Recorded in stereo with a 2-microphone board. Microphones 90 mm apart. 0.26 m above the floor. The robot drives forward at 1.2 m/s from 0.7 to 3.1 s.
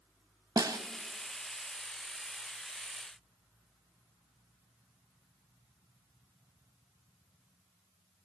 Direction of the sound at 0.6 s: 45° right (ahead or behind).